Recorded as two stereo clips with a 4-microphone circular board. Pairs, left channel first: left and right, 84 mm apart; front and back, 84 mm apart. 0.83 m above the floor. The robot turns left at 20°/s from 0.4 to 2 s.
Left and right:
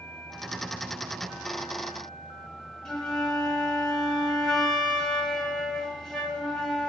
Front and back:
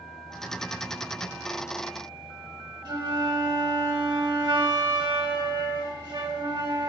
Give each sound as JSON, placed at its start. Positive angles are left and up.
{"t": 2.9, "sound": "a flute", "azimuth_deg": 170, "distance_m": 0.9}